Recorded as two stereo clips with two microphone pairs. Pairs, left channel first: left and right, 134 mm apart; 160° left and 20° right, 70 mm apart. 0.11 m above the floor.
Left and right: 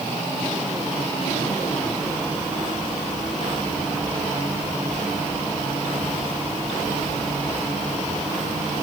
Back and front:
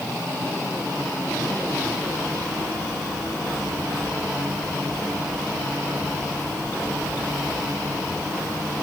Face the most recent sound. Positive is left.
No sound to turn to.